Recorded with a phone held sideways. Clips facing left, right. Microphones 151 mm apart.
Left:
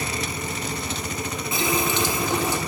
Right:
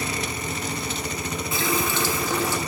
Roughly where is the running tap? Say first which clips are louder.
Left 2 dB; centre.